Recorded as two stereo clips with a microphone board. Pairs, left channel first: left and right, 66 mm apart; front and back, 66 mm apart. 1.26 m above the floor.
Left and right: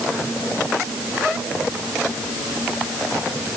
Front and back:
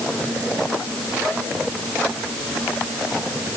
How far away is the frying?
I don't hear frying.